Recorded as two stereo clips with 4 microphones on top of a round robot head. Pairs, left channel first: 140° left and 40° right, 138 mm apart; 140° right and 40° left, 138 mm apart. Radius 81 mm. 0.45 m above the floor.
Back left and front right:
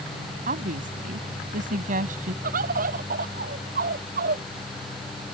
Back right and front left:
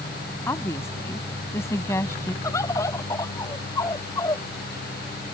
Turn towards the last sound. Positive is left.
turn(degrees=-70)